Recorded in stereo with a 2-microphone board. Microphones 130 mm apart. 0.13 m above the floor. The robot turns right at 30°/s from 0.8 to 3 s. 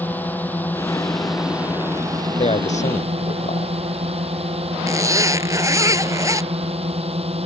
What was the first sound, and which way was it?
A drone, 165° left.